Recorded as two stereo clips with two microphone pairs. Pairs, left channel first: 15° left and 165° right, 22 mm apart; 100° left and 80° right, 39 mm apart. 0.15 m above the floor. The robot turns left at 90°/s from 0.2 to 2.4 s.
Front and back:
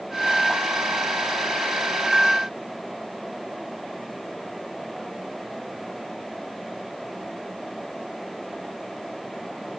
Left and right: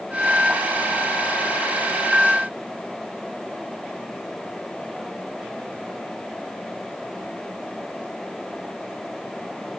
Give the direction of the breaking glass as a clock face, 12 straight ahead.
I don't hear breaking glass.